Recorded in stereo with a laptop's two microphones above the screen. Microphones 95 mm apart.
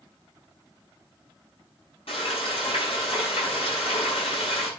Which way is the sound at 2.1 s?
80° left.